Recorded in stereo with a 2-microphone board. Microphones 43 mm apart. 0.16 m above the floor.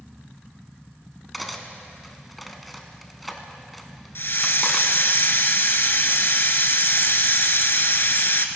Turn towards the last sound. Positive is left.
turn(degrees=55)  # may be behind; listen again after turning